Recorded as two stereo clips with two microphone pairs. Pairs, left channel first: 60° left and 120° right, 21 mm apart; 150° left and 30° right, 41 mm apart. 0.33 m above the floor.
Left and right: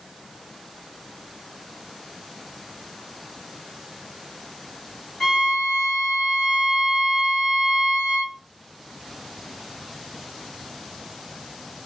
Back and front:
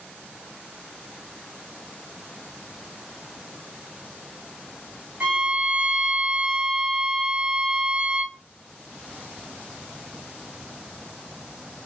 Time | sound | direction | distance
5.2 | a violin | 15° left | 3 m